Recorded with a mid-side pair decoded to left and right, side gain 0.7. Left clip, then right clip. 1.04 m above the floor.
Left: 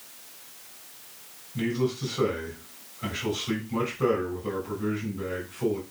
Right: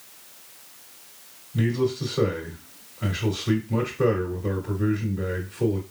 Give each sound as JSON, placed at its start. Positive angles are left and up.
{"t": 1.5, "sound": "a man speaking", "azimuth_deg": -65, "distance_m": 2.5}